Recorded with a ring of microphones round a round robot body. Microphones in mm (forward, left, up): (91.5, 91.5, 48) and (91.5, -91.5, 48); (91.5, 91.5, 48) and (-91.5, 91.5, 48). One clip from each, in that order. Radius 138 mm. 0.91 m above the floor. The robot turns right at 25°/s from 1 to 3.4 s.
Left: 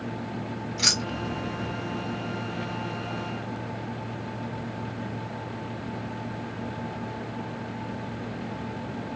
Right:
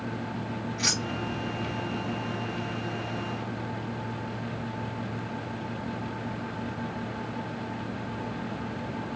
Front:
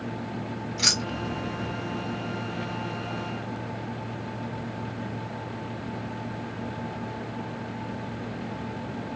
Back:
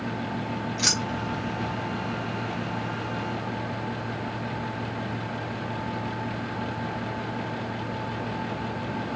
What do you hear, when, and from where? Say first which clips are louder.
0.8 s keys jangling: left 4 dB, front 2 dB; 80° left, 1.0 m; by 1.7 s 100° left, 1.0 m